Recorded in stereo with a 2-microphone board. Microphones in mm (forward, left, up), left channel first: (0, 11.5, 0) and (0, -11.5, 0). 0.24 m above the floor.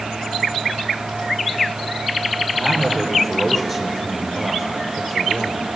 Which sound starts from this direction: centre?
A man speaking, at 2.5 s.